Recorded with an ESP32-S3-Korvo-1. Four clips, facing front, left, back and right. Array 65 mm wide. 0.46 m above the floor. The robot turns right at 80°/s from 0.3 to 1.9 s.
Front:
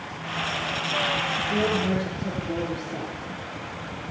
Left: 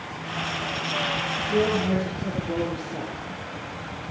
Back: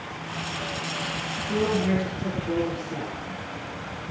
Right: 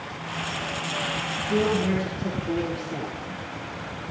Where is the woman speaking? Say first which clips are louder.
Even, back 2 dB; 175° right, 8 m; by 3.2 s 145° right, 8 m.